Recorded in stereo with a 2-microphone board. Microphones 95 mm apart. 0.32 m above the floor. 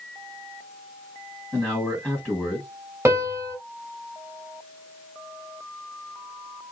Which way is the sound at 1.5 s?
5° left (ahead or behind).